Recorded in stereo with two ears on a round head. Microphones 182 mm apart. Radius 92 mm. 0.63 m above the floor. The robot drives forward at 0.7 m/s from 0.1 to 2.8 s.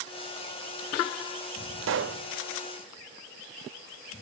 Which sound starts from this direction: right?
A pop, at 1.8 s.